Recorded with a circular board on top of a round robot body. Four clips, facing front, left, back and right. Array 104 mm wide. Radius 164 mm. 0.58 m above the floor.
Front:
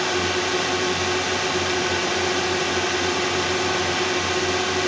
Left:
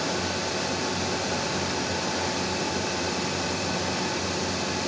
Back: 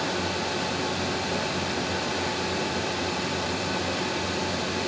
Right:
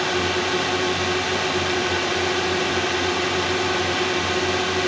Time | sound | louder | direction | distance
0.0 | a drone | right 6 dB, front 5 dB | 45° right | ?